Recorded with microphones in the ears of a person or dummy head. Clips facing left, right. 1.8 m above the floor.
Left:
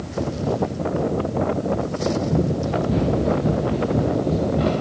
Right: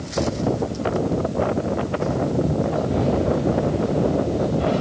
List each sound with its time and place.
2.3 s running footsteps: 75° left (ahead or behind), 9 m; by 4.7 s 70° left (ahead or behind), 9.5 m